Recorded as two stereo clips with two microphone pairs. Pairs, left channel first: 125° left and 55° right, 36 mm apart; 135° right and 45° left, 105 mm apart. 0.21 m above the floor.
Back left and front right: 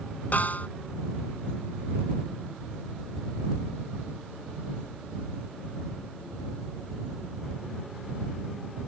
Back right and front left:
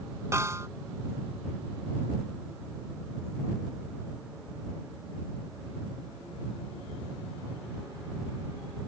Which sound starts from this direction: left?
A snare drum, at 0.3 s.